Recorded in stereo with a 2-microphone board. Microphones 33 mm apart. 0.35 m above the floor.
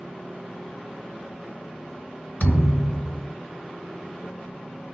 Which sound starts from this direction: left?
A thud, at 2.4 s.